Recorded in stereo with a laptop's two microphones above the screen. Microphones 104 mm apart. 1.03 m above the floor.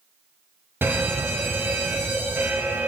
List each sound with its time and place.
0.8 s a fire alarm: 20° right (ahead or behind), 2.5 m